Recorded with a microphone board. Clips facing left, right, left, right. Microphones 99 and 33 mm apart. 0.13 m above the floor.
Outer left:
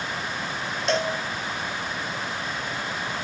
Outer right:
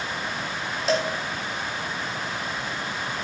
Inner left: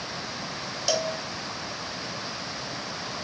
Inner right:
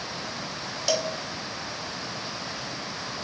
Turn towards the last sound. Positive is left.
turn(degrees=0)  # may be behind; listen again after turning